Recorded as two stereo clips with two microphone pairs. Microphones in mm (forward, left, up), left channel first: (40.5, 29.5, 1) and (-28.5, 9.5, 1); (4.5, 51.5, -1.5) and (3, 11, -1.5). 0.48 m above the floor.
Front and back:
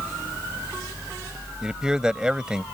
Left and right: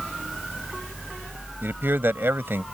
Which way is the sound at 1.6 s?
85° right.